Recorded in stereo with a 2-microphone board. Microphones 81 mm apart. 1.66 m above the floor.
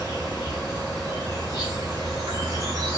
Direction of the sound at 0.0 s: 55° right (ahead or behind).